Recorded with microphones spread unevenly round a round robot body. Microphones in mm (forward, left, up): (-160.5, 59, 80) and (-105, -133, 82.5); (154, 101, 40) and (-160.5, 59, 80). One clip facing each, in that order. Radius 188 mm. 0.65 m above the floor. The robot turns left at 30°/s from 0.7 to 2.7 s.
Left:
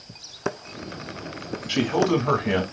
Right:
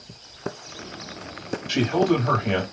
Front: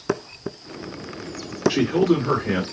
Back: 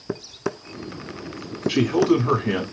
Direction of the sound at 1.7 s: 145° right.